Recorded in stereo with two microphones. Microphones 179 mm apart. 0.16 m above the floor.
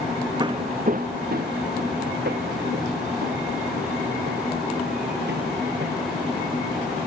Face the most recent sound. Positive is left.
turn(degrees=-70)  # may be behind; listen again after turning